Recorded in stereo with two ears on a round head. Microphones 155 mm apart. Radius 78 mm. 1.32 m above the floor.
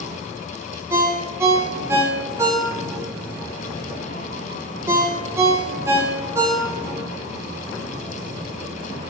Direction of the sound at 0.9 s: 15° right (ahead or behind).